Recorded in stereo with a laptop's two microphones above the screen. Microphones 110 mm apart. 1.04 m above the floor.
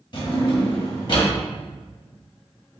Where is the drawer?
45° left (ahead or behind), 0.8 m.